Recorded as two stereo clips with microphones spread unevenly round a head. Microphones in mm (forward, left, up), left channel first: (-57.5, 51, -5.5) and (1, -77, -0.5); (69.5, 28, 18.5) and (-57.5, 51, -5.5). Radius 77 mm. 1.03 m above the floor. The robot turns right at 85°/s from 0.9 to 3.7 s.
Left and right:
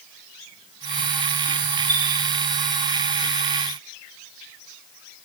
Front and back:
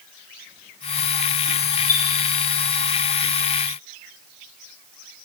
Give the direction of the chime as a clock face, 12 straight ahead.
12 o'clock.